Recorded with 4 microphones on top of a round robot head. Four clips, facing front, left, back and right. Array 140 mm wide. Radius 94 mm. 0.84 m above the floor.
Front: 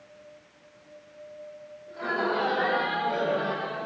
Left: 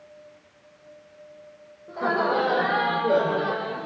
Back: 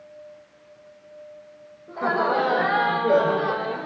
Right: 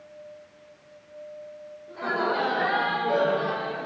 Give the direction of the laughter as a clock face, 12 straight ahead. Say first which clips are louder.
Left 3 dB, back 6 dB; 7 o'clock.